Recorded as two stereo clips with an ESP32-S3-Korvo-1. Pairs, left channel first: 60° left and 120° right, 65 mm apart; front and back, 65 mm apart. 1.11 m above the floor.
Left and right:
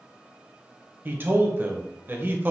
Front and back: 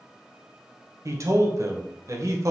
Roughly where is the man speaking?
Behind.